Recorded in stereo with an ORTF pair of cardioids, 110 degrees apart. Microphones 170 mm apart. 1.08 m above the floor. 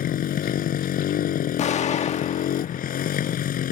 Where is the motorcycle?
55° left.